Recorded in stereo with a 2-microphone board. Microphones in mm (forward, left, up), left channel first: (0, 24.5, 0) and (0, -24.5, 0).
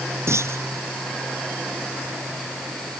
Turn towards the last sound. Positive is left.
turn(degrees=-70)  # may be behind; listen again after turning